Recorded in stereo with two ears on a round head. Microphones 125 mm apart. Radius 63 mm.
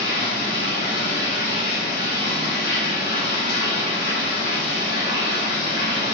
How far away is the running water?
About 1.0 m.